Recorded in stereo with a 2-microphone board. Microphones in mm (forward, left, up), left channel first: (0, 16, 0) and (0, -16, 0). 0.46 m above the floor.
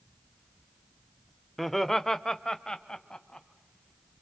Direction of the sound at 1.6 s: Centre (ahead or behind).